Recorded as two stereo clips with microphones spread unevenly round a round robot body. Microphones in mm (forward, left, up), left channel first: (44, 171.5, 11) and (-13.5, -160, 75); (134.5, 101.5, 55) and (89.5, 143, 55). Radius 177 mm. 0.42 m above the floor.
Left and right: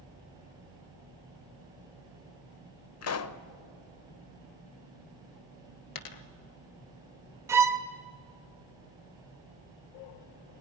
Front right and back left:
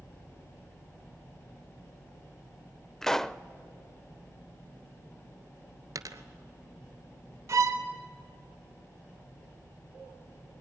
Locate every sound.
3.0 s a pop: 40° left, 0.8 m
6.0 s a dropped coin: 115° left, 1.3 m
7.5 s a violin: 170° left, 0.9 m